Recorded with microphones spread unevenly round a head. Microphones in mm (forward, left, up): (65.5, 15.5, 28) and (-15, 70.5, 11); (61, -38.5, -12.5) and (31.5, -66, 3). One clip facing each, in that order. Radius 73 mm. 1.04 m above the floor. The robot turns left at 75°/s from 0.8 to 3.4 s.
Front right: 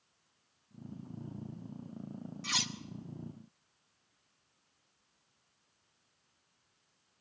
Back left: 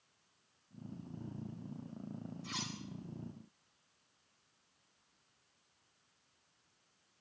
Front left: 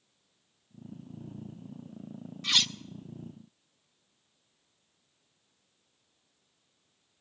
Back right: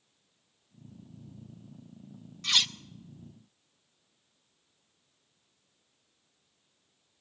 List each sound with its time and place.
2.4 s cutlery clinking: 45° right, 0.6 m; by 2.8 s 70° right, 0.6 m